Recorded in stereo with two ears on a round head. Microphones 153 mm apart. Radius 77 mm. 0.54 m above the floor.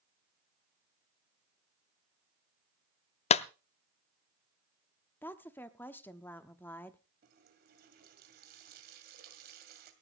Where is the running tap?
65° right (ahead or behind), 2.5 m.